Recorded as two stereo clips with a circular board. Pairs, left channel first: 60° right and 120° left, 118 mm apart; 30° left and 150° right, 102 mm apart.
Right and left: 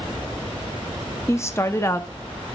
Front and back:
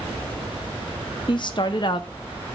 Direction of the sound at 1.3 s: Straight ahead.